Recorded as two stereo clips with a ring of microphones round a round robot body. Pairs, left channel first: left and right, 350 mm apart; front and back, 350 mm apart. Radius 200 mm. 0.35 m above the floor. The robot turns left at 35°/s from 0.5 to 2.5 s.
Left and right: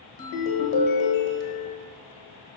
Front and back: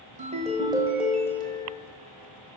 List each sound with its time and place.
0.2 s a ringtone: 110° left, 1.3 m; by 1.8 s 65° left, 1.3 m